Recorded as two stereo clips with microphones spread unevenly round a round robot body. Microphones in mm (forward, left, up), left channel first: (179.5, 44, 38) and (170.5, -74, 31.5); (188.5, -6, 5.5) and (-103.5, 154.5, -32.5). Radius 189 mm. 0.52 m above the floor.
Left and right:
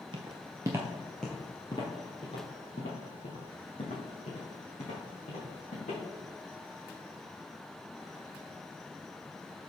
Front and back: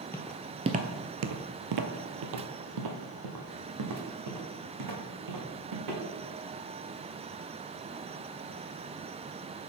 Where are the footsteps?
100° right, 0.6 m; by 6.0 s 125° left, 2.5 m.